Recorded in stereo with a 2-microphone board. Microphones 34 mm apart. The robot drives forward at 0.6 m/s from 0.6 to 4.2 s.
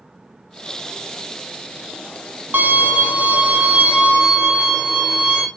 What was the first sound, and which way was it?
A violin, 65° right (ahead or behind).